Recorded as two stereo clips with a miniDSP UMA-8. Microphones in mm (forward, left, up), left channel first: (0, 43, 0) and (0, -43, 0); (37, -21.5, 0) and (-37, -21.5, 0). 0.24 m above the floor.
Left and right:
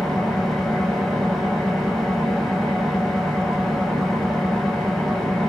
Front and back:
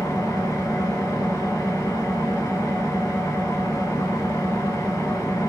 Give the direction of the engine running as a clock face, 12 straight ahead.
12 o'clock.